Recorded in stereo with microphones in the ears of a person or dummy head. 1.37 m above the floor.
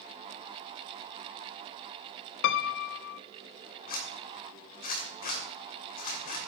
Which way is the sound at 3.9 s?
45° left (ahead or behind).